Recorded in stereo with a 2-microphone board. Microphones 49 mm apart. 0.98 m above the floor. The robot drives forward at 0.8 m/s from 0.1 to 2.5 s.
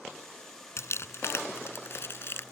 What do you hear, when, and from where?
0.8 s crumpling: 65° left (ahead or behind); by 2.5 s 55° left (ahead or behind)